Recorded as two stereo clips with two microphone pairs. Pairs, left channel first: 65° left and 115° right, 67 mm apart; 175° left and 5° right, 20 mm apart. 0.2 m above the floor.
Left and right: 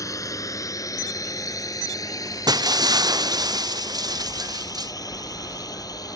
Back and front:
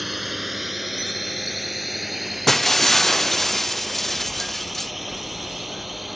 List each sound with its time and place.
0.0 s a drone: 85° left
2.5 s breaking glass: 105° right